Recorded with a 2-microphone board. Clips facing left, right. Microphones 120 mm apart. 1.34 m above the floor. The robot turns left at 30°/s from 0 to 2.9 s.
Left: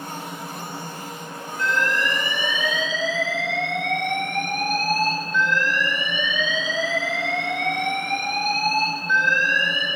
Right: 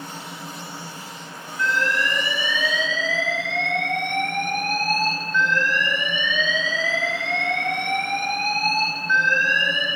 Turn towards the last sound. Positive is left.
turn(degrees=15)